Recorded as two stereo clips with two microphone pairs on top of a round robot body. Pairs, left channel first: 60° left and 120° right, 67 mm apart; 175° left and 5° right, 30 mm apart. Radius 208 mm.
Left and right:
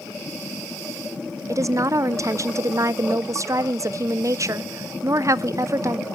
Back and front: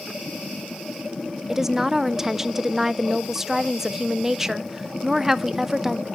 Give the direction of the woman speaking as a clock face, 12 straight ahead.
3 o'clock.